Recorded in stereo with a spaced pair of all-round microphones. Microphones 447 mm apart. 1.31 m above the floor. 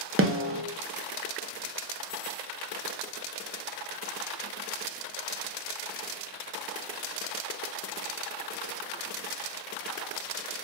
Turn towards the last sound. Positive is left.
turn(degrees=-30)  # may be behind; listen again after turning